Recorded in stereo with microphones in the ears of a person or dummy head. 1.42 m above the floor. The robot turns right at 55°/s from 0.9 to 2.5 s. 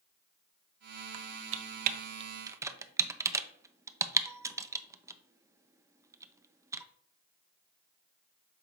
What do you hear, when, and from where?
1.1 s typing on a keyboard: 85° right, 0.5 m; by 6.8 s 15° right (ahead or behind), 0.5 m